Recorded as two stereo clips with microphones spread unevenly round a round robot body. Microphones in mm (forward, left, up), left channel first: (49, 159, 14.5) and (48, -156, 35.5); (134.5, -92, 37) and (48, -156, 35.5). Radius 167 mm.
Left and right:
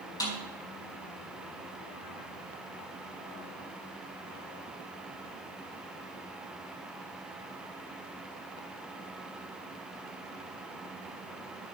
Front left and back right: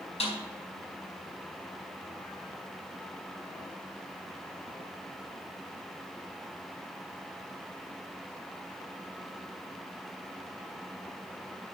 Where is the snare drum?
10° left, 4.5 m.